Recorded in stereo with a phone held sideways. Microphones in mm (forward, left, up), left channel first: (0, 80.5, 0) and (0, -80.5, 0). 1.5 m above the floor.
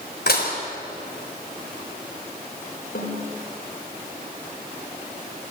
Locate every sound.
0.3 s dishes clattering: 80° left, 4.5 m
3.0 s a snare drum: 85° left, 5 m